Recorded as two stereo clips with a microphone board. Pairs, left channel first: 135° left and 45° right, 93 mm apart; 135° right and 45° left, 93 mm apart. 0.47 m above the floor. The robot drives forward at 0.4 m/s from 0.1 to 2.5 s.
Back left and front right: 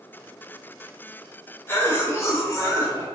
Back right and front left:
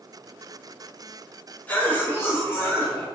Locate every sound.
1.7 s a cough: 170° left, 0.9 m; by 3.0 s 175° left, 1.1 m